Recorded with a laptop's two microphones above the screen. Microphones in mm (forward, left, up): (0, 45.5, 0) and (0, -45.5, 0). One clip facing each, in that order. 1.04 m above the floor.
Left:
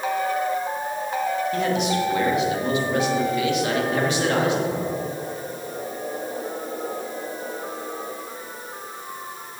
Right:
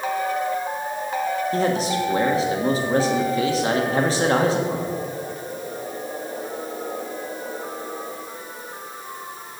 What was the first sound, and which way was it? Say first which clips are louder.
A man speaking: right 1 dB; 35° right (ahead or behind).